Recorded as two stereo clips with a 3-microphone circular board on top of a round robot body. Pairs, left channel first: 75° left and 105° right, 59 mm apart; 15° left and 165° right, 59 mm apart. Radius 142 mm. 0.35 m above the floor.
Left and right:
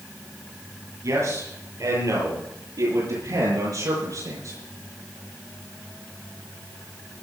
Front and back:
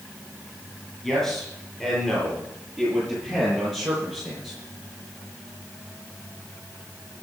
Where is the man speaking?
75° right, 9 m; by 4.6 s 85° right, 9.5 m.